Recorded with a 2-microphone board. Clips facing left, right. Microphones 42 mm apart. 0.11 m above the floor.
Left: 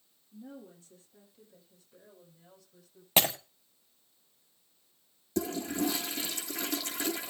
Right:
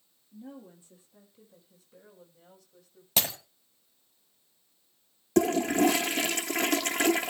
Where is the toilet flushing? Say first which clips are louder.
Right 9 dB; 60° right (ahead or behind), 0.6 m.